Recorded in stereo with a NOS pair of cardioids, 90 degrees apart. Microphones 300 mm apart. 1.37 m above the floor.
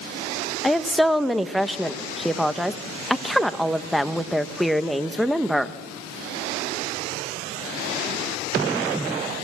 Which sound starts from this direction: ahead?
A woman speaking, at 0.6 s.